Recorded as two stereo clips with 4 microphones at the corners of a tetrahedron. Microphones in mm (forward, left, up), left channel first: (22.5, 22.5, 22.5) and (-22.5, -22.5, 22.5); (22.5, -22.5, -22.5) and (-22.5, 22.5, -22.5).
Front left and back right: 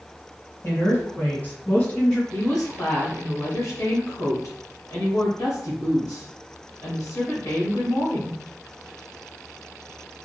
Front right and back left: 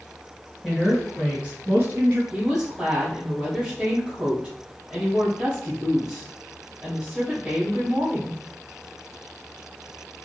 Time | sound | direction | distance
0.6 | a woman speaking | 45° left | 2.0 m
2.3 | a woman speaking | 60° left | 1.9 m